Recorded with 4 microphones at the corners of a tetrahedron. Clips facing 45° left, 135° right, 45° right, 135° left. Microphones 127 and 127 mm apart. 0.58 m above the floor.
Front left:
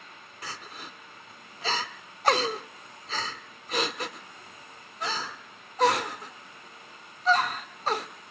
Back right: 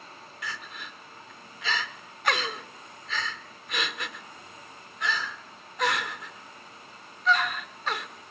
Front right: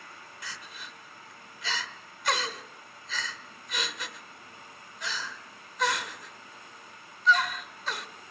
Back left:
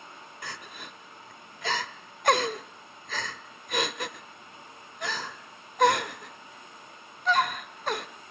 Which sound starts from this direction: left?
Crying, at 0.4 s.